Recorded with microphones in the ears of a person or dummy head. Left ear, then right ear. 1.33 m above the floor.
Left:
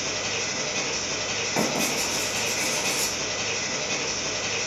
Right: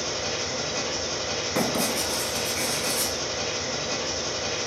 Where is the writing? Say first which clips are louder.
Even; 50° right (ahead or behind), 1.7 m.